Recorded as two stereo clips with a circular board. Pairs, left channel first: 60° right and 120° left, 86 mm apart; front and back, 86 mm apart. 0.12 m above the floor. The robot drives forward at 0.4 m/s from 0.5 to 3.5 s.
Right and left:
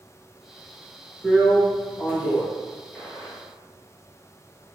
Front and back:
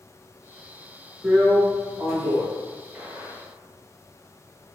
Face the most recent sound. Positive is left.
turn(degrees=-145)